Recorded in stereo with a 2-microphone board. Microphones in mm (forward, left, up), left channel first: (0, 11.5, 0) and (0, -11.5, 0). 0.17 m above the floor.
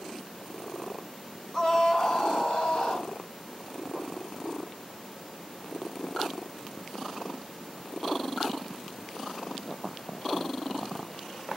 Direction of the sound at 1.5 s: 20° left (ahead or behind).